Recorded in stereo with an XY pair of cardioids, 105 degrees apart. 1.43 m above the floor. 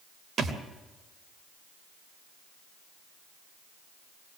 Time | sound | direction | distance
0.4 | a thud | 55° right | 3 m